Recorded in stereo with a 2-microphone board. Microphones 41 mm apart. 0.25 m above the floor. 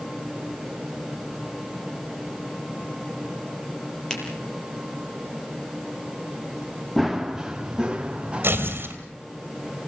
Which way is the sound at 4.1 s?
15° left (ahead or behind).